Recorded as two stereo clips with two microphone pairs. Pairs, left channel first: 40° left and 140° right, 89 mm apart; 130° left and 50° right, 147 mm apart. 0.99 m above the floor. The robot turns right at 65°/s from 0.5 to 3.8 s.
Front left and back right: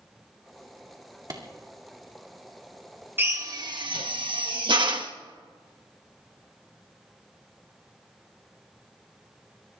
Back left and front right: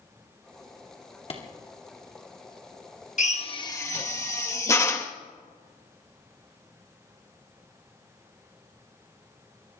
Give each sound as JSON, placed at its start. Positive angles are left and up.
{"t": 1.3, "sound": "a clap", "azimuth_deg": 175, "distance_m": 2.0}
{"t": 3.2, "sound": "a drill", "azimuth_deg": 160, "distance_m": 1.2}